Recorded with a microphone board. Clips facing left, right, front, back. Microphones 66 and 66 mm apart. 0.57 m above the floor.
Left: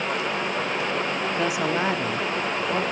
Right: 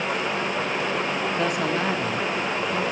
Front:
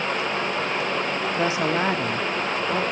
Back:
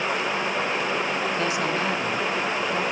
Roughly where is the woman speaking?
Ahead.